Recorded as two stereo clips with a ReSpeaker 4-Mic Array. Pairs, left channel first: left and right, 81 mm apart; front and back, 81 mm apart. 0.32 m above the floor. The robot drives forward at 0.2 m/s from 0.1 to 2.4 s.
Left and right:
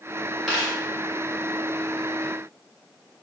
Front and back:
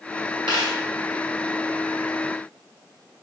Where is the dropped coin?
Straight behind, 2.0 m.